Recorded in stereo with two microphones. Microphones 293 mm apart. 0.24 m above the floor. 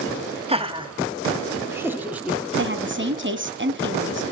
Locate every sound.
0.5 s laughter: 20° right (ahead or behind), 1.6 m; by 2.4 s 5° right (ahead or behind), 2 m
2.6 s a woman speaking: 40° right (ahead or behind), 1.7 m